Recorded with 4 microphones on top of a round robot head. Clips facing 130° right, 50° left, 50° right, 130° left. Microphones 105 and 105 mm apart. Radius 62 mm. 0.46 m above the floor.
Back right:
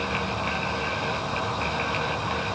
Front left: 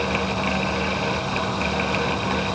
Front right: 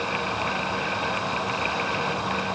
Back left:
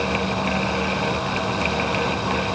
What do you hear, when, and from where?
Only background noise.